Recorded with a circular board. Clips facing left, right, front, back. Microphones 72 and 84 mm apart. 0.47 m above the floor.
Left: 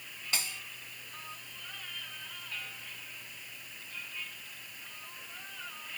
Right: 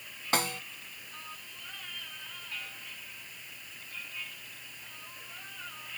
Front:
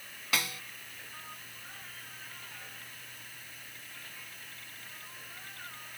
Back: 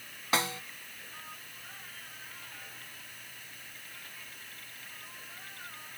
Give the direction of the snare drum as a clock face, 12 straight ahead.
4 o'clock.